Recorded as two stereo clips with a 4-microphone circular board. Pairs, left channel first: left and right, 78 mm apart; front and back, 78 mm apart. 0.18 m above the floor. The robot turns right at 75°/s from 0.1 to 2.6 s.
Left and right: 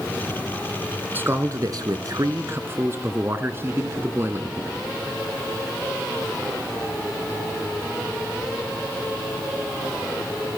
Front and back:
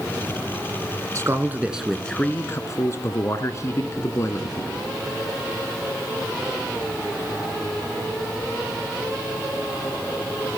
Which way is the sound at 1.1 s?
145° right.